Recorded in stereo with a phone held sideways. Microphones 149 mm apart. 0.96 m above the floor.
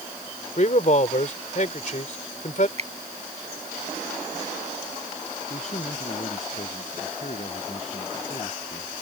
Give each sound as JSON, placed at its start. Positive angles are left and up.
{"t": 0.6, "sound": "a man speaking", "side_deg": 55}
{"t": 2.8, "sound": "a finger snap", "side_deg": -50}
{"t": 5.5, "sound": "a man speaking", "side_deg": 50}